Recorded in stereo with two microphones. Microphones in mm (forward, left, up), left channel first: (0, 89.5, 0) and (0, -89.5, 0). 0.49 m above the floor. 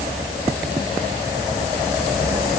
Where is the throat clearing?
No throat clearing in this recording.